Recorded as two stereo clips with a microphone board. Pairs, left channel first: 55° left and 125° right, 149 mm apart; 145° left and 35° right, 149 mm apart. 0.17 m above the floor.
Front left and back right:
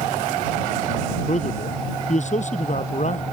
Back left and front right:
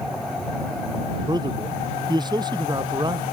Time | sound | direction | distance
1.3 | a man speaking | 25° left | ?